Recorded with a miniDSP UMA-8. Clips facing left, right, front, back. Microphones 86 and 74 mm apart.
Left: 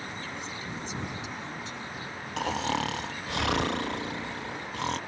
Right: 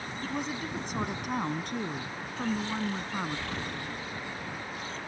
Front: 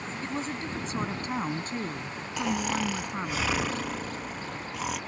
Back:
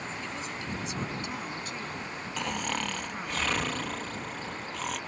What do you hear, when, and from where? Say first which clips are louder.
0.2 s a woman speaking: right 4 dB, front 4 dB; 50° right; by 3.4 s 60° right
2.4 s snoring: left 3 dB, front 4 dB; 85° left